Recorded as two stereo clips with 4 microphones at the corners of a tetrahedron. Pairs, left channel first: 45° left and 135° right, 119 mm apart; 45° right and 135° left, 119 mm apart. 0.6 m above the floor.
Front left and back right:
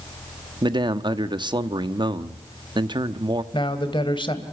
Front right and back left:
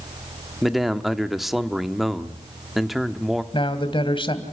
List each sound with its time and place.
0.6 s a man speaking: 135° right, 1.1 m
3.5 s a man speaking: straight ahead, 2.5 m